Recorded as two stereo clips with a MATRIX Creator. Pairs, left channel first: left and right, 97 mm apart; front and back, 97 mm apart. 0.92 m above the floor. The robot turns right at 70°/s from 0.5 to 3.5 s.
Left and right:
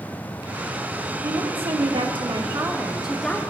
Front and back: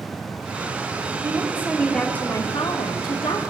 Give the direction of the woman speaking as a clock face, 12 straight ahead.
4 o'clock.